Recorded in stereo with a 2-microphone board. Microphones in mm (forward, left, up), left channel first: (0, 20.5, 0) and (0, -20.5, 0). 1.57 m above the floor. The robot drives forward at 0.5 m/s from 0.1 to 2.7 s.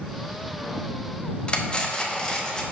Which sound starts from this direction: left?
Cutlery clinking, at 1.5 s.